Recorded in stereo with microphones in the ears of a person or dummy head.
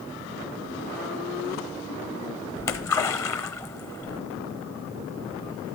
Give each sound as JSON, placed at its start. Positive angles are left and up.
{"t": 2.6, "sound": "a splash", "side_deg": 15, "distance_m": 0.7}